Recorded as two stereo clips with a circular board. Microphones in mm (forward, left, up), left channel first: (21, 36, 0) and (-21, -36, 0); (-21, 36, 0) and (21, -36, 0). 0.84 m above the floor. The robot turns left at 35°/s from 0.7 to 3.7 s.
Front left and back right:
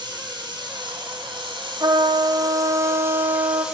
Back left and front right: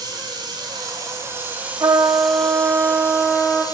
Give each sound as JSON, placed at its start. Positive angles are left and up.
{"t": 0.0, "sound": "running water", "azimuth_deg": -95, "distance_m": 9.0}
{"t": 1.8, "sound": "a trumpet", "azimuth_deg": -95, "distance_m": 3.0}